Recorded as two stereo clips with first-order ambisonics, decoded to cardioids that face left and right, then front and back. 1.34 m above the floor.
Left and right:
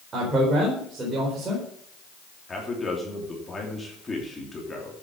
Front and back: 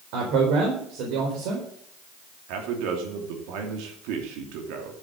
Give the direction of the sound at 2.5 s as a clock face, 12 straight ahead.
6 o'clock.